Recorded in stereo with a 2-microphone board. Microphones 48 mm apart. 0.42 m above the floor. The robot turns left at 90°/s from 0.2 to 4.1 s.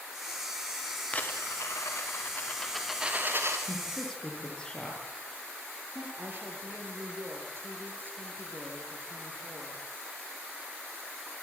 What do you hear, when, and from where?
1.1 s a dropped coin: 155° left, 4.5 m; by 3.6 s 65° right, 4.5 m
3.7 s a woman speaking: 20° right (ahead or behind), 9 m; by 6.1 s 20° left (ahead or behind), 9 m
6.2 s a woman speaking: 45° right (ahead or behind), 8.5 m